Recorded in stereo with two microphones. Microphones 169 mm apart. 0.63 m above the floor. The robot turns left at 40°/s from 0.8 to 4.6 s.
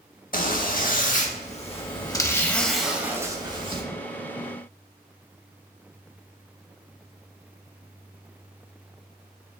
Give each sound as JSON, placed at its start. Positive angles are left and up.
{"t": 0.3, "sound": "a zipper", "azimuth_deg": 80, "distance_m": 0.6}